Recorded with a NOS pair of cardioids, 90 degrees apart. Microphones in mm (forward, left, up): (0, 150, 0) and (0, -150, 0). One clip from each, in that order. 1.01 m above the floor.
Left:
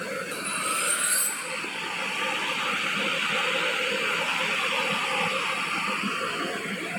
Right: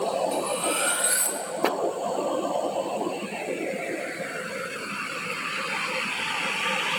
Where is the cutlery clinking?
15° right, 0.9 m.